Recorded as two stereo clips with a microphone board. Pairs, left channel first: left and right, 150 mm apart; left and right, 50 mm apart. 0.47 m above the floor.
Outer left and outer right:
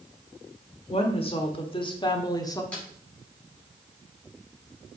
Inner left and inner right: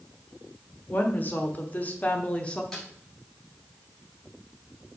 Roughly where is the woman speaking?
Left.